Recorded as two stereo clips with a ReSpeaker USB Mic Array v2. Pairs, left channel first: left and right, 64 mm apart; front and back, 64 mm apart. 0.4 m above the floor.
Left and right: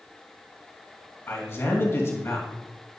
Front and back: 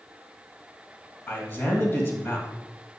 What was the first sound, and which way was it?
A man speaking, 50° left.